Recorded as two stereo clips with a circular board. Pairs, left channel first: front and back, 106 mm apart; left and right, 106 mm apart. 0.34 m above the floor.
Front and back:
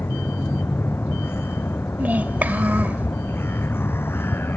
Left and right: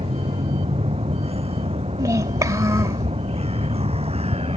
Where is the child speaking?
120° right.